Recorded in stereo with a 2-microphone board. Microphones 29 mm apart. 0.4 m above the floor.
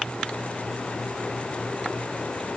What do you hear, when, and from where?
Only background noise.